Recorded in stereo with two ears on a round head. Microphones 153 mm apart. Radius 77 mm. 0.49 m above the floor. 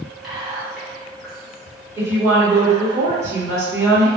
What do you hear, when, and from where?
0.2 s whispering: centre (ahead or behind), 0.7 m
2.0 s a woman speaking: 15° right (ahead or behind), 1.1 m